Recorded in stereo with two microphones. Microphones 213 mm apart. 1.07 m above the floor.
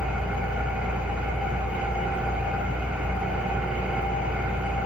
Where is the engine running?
5° right (ahead or behind), 3 m.